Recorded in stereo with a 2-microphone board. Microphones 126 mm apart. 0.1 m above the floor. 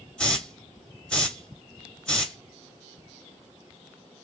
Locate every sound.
0.2 s a hiss: 5° left (ahead or behind), 0.7 m